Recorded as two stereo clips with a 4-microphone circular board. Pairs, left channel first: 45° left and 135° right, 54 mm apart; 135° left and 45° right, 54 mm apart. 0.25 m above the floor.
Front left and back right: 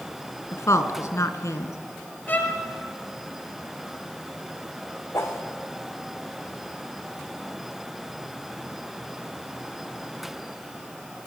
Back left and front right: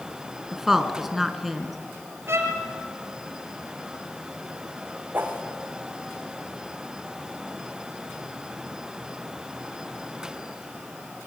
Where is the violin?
10° right, 5 m.